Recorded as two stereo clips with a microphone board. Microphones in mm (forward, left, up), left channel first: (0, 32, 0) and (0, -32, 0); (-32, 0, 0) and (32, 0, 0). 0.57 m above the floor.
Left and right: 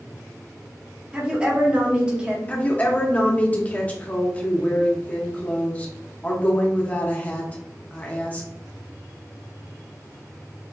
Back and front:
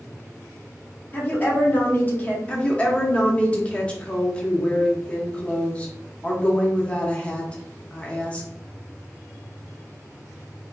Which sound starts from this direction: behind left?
A woman speaking, at 2.5 s.